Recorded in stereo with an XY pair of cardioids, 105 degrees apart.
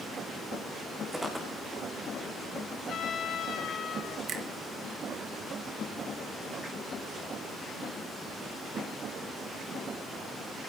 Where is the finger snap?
50° right, 3 m.